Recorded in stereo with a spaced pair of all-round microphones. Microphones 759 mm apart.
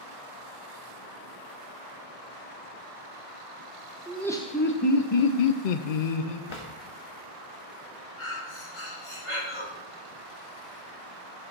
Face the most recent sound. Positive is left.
turn(degrees=40)  # may be behind; listen again after turning